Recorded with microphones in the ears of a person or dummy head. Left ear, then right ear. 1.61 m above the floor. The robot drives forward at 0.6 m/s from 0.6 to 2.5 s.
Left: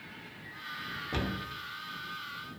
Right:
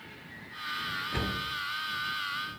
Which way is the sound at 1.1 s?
85° left.